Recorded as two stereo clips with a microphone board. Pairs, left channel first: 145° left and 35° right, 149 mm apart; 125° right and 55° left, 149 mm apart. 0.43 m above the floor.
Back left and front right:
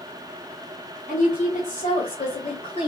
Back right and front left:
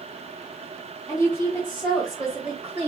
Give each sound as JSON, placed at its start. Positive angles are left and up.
{"t": 1.1, "sound": "a woman speaking", "azimuth_deg": 165, "distance_m": 2.5}